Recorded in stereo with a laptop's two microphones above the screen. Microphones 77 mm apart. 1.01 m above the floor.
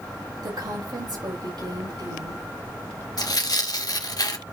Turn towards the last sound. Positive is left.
turn(degrees=60)  # may be behind; listen again after turning